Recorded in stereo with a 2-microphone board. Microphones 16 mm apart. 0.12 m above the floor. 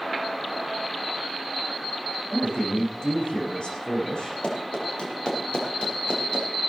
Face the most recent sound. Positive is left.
turn(degrees=70)  # may be behind; listen again after turning